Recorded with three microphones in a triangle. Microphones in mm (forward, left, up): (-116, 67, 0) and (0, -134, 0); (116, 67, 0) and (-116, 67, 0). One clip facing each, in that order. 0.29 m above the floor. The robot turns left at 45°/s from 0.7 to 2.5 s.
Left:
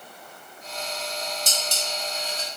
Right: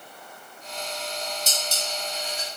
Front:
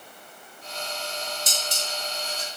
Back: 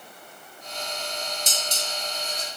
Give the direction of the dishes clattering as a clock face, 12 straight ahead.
8 o'clock.